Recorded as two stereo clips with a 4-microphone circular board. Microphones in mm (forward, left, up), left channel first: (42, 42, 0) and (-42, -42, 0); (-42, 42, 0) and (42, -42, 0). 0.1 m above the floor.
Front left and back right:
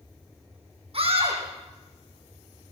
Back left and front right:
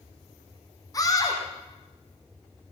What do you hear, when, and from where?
0.9 s a scream: 165° right, 6 m